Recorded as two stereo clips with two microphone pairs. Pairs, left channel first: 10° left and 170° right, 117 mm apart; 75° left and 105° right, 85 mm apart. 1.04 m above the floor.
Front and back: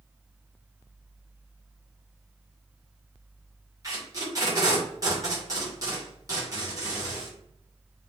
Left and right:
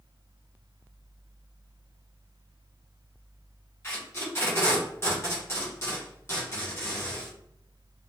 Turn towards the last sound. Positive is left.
turn(degrees=135)